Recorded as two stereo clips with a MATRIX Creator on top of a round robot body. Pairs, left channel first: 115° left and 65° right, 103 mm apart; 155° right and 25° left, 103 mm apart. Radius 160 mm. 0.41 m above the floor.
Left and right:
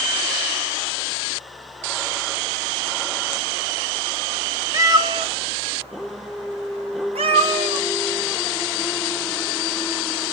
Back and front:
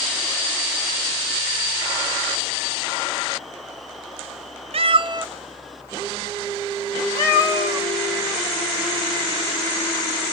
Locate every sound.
4.7 s a cat meowing: 5° right, 0.6 m; by 7.9 s 100° right, 1.7 m